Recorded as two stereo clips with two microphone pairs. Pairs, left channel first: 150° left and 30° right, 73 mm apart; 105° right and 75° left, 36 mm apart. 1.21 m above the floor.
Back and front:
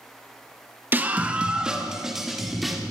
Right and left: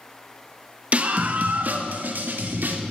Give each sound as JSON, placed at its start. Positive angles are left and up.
{"t": 0.9, "sound": "a scream", "azimuth_deg": 30, "distance_m": 1.7}